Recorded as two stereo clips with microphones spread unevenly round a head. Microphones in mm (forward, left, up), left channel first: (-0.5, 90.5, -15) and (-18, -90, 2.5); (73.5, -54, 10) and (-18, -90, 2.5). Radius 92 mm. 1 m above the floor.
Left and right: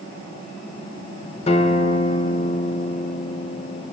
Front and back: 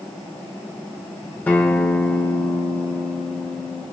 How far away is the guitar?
About 0.7 m.